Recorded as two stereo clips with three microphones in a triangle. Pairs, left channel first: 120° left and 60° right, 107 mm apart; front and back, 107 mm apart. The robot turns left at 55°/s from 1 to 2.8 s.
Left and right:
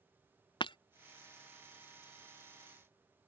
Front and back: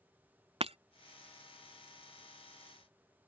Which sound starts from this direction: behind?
Breaking glass, at 0.6 s.